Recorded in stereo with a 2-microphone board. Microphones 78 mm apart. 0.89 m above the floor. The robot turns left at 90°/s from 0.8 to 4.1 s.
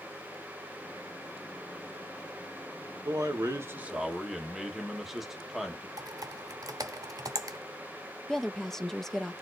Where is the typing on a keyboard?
50° right (ahead or behind), 0.8 m.